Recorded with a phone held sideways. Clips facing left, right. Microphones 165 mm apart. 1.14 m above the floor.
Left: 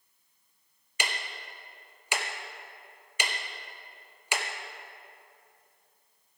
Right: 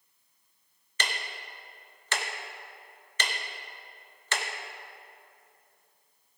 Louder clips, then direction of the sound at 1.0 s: Even; 10° left (ahead or behind).